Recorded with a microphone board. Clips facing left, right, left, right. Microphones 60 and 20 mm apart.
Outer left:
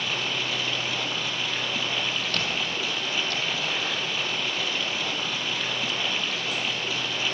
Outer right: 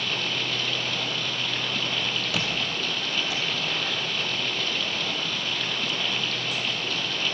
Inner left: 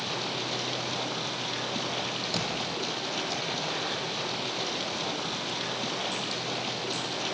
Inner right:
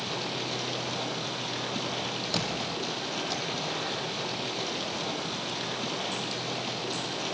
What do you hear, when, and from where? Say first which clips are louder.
0.0 s running water: even, inner left 1 dB; 10° left (ahead or behind), 4.5 m
2.3 s a squeak: even, even; 10° right (ahead or behind), 4 m